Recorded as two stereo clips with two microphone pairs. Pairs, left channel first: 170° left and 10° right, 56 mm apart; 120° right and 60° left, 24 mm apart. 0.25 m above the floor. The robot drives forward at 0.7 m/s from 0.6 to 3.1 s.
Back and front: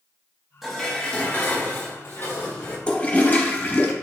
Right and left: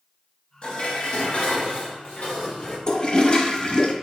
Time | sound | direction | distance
0.6 | dishes clattering | 90° right | 0.8 m
2.9 | a toilet flushing | 130° right | 0.5 m